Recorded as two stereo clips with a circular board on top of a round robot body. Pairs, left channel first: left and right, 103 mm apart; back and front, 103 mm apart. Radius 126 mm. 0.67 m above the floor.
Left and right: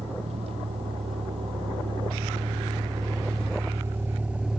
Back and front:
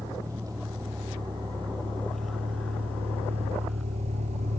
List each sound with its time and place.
0.0 s a vehicle: 60° right; by 4.6 s 5° right